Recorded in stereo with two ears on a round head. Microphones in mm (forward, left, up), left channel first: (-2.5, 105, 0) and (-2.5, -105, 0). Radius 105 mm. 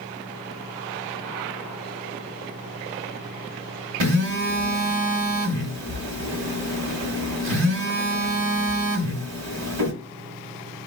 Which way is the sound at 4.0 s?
80° right.